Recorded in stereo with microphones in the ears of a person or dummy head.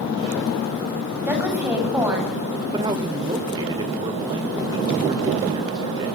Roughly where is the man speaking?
Right.